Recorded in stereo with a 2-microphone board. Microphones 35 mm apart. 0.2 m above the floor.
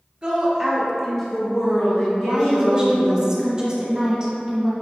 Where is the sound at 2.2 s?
25° right (ahead or behind), 1.5 m.